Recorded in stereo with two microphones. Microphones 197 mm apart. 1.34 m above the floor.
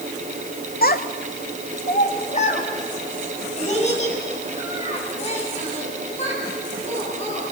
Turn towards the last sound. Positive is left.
turn(degrees=35)  # may be behind; listen again after turning